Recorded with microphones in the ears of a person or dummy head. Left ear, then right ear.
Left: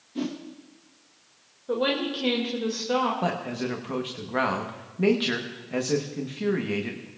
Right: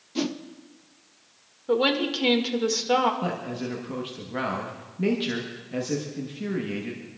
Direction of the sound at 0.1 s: 45° right (ahead or behind).